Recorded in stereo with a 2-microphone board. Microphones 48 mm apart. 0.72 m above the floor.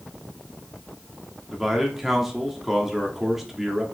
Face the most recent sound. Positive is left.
turn(degrees=-5)  # may be behind; listen again after turning